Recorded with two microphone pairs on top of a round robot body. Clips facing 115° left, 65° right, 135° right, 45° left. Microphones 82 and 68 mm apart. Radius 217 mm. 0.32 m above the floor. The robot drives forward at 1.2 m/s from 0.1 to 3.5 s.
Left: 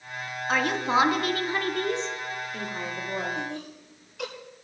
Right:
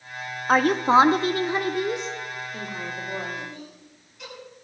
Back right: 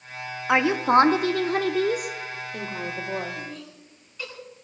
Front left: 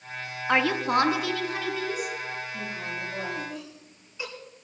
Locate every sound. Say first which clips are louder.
0.5 s a woman speaking: right 7 dB, back right 4 dB; 60° right, 1.8 m; by 3.4 s 160° right, 3.5 m
3.4 s laughter: left 4 dB, front left 1 dB; 120° left, 8 m